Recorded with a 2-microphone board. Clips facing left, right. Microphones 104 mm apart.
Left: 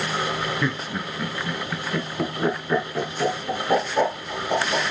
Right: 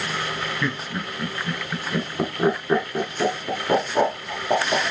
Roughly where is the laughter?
Centre.